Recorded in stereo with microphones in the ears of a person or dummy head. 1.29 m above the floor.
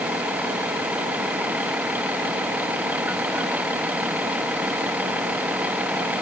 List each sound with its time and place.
0.0 s a vehicle: 5° right (ahead or behind)